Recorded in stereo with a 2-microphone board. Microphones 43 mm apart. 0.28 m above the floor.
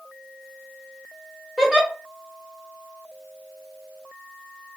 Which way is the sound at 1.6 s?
10° right (ahead or behind).